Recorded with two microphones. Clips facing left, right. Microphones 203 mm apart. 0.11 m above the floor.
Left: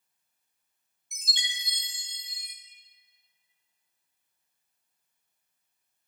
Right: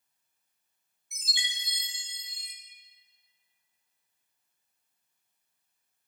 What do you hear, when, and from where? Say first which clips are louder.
1.1 s a chime: left 1 dB; 5° right (ahead or behind), 1.8 m